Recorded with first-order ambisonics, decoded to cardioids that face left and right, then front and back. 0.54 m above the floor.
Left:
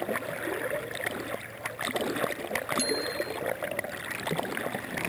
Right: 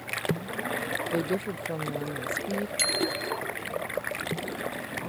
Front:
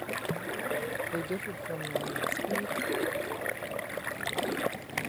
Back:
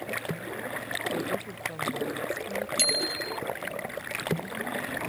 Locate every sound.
1.1 s a woman speaking: 80° right
2.8 s a bicycle bell: 165° right